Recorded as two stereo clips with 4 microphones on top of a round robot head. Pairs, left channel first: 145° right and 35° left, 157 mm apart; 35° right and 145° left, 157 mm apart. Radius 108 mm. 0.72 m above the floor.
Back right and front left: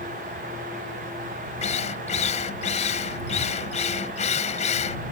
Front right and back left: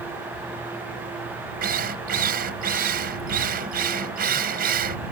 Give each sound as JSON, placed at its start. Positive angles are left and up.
{"t": 1.6, "sound": "a drill", "azimuth_deg": 170}